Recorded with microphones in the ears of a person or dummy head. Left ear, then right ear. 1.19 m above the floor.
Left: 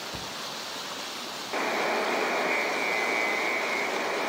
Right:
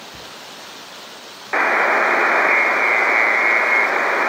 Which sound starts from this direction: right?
A buzzer, at 1.5 s.